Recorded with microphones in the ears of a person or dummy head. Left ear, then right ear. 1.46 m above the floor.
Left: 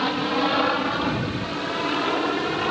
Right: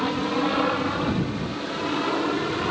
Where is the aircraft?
30° left (ahead or behind); by 2.7 s 25° left (ahead or behind).